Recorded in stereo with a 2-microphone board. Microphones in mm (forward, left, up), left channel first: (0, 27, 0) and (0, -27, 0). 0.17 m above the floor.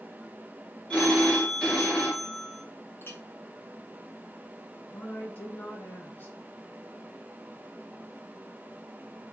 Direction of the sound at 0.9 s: 15° left (ahead or behind).